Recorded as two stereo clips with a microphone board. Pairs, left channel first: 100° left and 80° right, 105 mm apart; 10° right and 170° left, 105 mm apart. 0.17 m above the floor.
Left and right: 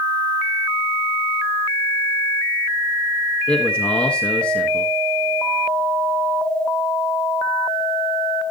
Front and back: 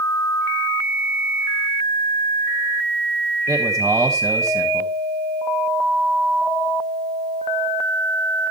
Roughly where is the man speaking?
Behind.